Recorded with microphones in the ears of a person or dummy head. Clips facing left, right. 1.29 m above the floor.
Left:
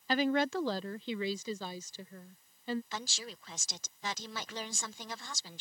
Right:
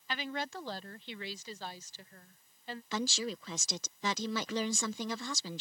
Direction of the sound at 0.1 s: 30° left (ahead or behind).